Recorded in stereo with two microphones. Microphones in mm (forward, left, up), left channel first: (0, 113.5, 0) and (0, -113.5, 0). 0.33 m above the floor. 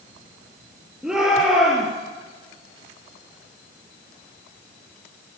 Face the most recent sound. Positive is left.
turn(degrees=-5)  # may be behind; listen again after turning